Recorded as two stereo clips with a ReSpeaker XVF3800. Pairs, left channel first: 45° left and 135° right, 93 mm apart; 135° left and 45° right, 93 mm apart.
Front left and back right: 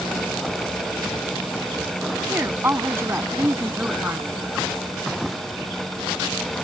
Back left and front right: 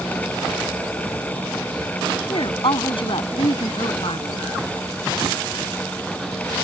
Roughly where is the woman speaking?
Behind.